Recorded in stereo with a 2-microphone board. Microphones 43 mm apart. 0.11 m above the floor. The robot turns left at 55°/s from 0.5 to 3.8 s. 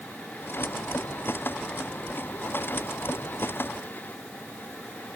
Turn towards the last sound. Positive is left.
No sound to turn to.